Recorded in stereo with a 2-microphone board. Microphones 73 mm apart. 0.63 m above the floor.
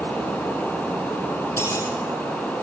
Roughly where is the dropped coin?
Left.